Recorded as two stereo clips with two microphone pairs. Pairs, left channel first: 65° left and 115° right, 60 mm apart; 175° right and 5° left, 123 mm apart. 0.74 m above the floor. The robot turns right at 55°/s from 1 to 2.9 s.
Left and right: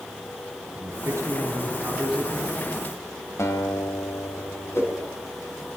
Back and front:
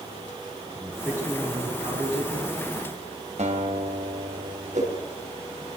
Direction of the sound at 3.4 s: 30° left.